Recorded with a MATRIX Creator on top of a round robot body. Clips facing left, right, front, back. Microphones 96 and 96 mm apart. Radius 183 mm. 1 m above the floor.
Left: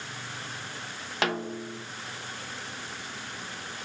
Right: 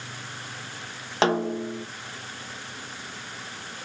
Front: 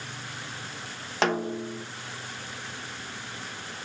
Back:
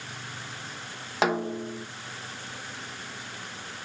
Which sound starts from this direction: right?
A snare drum, at 1.2 s.